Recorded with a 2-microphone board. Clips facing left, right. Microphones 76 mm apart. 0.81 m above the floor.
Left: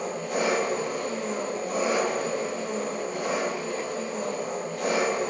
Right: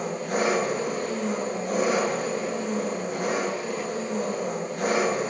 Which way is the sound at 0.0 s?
70° right (ahead or behind).